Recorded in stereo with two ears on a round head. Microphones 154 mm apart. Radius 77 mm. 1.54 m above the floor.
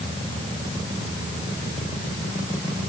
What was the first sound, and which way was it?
Only background noise.